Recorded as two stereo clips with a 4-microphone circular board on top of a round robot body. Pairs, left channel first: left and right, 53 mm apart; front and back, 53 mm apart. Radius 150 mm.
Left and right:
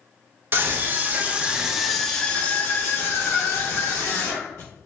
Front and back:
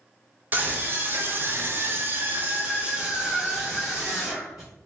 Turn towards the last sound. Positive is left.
turn(degrees=95)